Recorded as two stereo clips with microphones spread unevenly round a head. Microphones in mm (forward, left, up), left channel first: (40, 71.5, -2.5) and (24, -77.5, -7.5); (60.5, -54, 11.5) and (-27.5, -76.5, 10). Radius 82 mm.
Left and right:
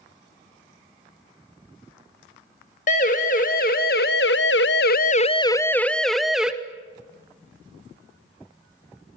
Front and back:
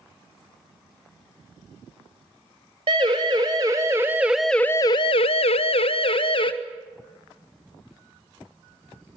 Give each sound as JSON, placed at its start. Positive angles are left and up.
{"t": 2.9, "sound": "a siren", "azimuth_deg": 135, "distance_m": 3.0}